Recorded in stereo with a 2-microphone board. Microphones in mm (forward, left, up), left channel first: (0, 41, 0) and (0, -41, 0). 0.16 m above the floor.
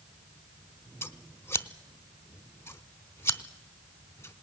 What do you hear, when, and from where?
1.0 s scissors: 30° left (ahead or behind), 0.7 m